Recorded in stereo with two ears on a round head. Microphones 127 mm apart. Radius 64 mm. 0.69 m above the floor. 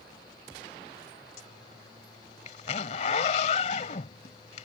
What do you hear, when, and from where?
1.4 s a zipper: 50° left (ahead or behind)